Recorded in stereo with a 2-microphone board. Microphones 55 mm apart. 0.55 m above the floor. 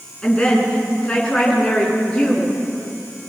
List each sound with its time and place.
0.2 s a woman speaking: 15° left (ahead or behind), 7 m